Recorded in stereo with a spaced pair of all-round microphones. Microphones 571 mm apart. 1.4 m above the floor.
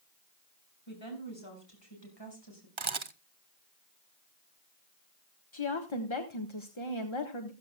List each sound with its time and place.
0.9 s a woman speaking: 50° left (ahead or behind), 6.5 m; by 2.7 s 40° left (ahead or behind), 6.5 m
2.8 s a camera shutter: 55° right (ahead or behind), 0.9 m
5.5 s a woman speaking: 50° left (ahead or behind), 1.5 m